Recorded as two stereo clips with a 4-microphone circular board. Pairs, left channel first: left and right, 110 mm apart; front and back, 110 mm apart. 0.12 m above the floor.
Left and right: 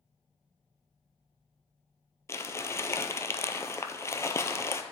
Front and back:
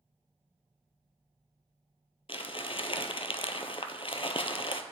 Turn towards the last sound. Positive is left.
turn(degrees=25)